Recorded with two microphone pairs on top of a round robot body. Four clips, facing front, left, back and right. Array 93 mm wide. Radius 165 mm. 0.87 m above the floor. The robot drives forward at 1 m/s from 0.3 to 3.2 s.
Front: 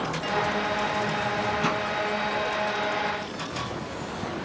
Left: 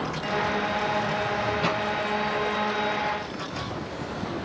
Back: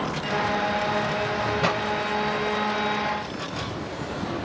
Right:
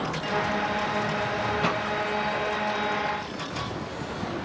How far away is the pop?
About 4 m.